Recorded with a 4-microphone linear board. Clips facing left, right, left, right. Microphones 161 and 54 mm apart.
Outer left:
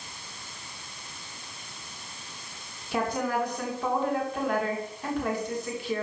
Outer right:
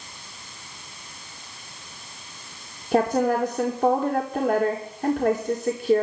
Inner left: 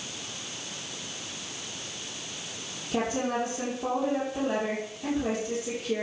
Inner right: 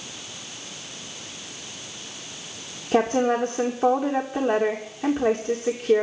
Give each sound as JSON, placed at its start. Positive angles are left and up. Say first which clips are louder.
{"t": 2.9, "sound": "a woman speaking", "louder": "outer right 8 dB, inner right 8 dB", "side_deg": -45, "distance_m": 2.5}